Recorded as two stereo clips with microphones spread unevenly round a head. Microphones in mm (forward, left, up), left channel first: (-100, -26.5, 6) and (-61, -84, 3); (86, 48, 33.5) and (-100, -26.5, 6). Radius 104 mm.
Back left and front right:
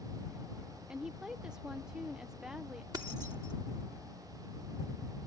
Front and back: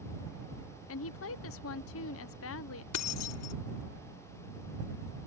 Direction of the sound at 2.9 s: 15° left.